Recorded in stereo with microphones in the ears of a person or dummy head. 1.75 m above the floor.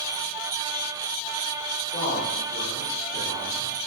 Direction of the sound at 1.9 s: 45° left (ahead or behind).